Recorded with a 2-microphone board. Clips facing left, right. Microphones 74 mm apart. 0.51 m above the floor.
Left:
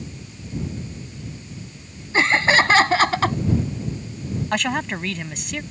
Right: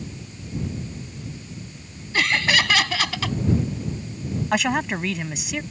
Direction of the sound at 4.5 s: 5° right (ahead or behind).